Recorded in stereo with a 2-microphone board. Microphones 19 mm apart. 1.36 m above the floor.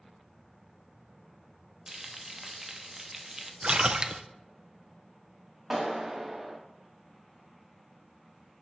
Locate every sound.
1.9 s frying: 20° right (ahead or behind), 0.9 m
3.6 s a splash: 50° right (ahead or behind), 0.5 m
5.7 s a clap: 15° right (ahead or behind), 2.5 m